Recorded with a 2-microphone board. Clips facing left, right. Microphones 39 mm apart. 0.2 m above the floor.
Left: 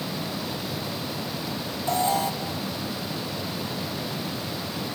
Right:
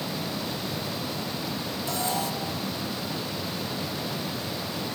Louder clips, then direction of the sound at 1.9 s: Left 6 dB; 35° left (ahead or behind).